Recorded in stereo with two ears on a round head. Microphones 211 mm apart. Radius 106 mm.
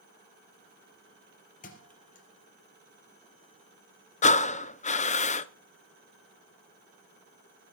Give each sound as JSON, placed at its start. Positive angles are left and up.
{"t": 1.6, "sound": "a thud", "side_deg": 35, "distance_m": 3.5}
{"t": 4.2, "sound": "breathing", "side_deg": 30, "distance_m": 0.6}